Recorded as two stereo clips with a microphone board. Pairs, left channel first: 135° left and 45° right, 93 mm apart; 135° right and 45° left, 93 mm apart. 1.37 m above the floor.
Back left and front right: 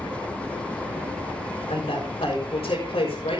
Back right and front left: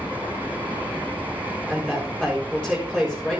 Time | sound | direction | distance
1.7 | a woman speaking | 120° left | 5 m